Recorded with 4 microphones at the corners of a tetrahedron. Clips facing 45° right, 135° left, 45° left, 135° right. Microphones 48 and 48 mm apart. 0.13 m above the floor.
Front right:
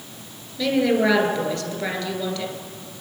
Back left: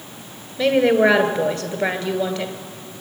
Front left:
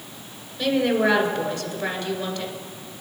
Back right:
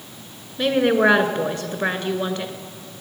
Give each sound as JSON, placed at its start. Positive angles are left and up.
{"t": 0.6, "sound": "a woman speaking", "azimuth_deg": -170, "distance_m": 1.8}